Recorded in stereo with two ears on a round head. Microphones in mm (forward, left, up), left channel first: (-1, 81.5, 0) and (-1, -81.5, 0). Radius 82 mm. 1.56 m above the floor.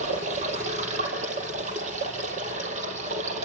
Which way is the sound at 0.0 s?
45° right (ahead or behind).